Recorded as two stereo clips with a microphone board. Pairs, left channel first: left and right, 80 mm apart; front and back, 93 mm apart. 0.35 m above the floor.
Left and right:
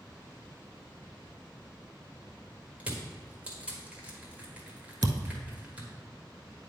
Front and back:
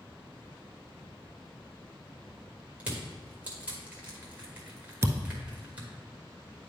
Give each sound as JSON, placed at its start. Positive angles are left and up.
{"t": 2.8, "sound": "crushing", "azimuth_deg": -130, "distance_m": 1.6}
{"t": 5.0, "sound": "a thud", "azimuth_deg": -125, "distance_m": 0.6}